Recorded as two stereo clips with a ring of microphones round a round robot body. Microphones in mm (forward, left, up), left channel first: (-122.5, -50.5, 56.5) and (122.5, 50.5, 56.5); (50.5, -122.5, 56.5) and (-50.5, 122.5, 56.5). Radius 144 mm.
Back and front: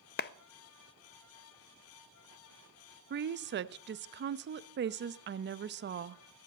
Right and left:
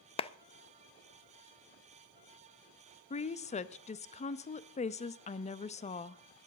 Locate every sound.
0.2 s a clap: 125° right, 0.6 m
3.1 s a woman speaking: 10° right, 0.7 m